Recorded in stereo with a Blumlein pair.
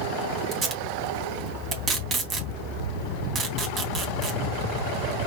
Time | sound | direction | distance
0.5 | tape being pulled | 25° right | 3 m